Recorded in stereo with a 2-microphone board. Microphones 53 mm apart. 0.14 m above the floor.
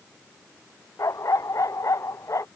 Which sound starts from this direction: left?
A dog barking, at 1.0 s.